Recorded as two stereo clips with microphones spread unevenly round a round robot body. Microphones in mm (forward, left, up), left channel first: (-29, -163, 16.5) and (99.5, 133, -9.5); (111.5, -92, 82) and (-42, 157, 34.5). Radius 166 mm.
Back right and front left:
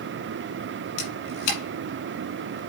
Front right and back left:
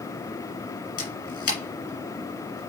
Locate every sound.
1.0 s a camera shutter: 125° right, 4.5 m